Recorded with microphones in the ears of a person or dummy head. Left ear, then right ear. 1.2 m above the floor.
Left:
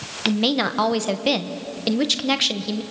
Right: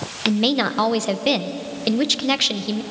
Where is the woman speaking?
Centre (ahead or behind), 1.0 m.